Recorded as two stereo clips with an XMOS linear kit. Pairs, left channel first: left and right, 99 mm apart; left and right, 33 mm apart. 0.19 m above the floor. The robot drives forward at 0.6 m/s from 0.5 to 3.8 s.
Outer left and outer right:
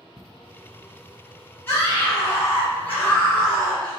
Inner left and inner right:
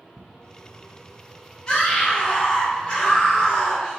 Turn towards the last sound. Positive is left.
turn(degrees=15)  # may be behind; listen again after turning